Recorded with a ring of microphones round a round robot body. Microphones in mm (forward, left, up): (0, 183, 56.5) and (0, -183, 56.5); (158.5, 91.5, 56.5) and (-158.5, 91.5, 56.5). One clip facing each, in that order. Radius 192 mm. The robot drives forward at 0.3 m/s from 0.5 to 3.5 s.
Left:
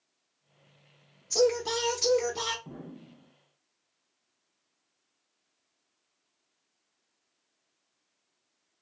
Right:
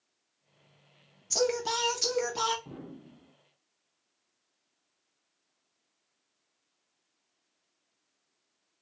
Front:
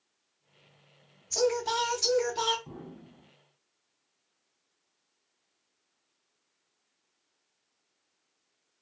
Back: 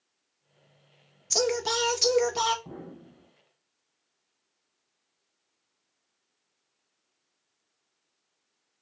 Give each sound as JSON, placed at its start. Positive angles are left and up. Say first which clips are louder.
{"t": 1.3, "sound": "singing", "louder": "left 4 dB, even", "azimuth_deg": -170, "distance_m": 0.6}
{"t": 2.6, "sound": "an explosion", "louder": "even, back 2 dB", "azimuth_deg": -170, "distance_m": 1.5}